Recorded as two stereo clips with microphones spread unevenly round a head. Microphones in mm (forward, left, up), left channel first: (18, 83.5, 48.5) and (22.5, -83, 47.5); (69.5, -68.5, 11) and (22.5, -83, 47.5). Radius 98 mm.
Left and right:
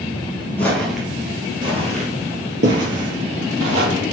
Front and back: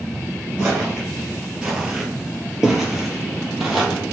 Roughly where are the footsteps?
Behind.